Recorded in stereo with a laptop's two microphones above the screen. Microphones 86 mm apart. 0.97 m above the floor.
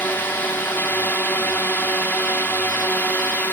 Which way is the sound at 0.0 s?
20° left (ahead or behind).